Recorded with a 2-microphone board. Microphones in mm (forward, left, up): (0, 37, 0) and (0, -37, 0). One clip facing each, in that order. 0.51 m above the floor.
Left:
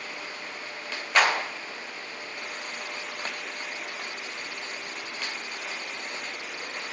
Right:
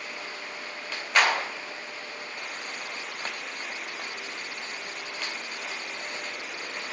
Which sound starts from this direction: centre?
A clap, at 1.1 s.